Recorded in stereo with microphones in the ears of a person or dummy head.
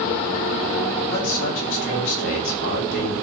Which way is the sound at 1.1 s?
70° left (ahead or behind).